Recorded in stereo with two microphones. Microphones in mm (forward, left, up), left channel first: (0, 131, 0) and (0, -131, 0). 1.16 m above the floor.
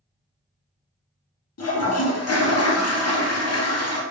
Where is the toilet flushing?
70° left (ahead or behind), 0.5 m.